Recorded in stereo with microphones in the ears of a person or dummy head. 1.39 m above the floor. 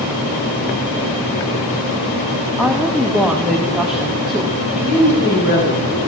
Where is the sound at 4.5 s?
85° left, 3.5 m.